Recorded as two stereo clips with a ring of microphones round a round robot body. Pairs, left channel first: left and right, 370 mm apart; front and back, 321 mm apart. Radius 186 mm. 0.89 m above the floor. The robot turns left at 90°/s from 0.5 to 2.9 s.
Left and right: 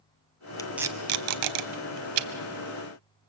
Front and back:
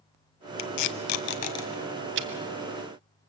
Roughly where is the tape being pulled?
Ahead.